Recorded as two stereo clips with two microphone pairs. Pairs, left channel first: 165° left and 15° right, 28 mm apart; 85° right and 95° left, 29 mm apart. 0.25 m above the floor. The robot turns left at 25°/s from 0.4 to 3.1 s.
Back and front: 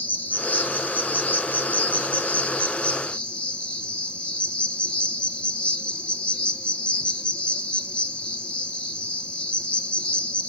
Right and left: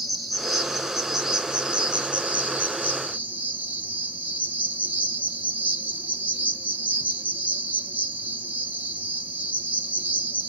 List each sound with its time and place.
0.0 s an insect: 170° right, 1.6 m; by 10.5 s 120° left, 1.6 m